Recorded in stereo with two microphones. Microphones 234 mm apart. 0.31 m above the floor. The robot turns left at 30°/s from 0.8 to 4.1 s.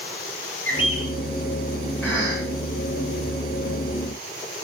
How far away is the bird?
About 3.5 m.